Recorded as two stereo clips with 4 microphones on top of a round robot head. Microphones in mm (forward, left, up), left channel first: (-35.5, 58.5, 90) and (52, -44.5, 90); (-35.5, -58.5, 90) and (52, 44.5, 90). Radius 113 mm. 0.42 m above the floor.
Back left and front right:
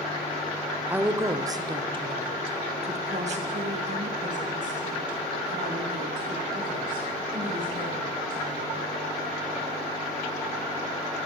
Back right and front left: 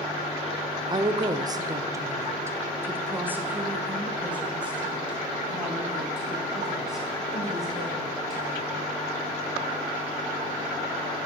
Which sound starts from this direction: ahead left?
A woman speaking, at 0.9 s.